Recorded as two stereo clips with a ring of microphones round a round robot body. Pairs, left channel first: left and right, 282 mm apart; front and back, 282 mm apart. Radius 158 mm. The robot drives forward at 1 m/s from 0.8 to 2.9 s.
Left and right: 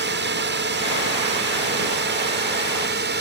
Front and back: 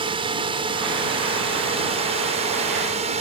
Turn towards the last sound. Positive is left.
turn(degrees=-120)